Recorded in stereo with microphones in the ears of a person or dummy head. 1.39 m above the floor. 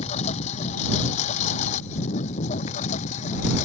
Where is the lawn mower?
35° left (ahead or behind); by 3.7 s 40° left (ahead or behind).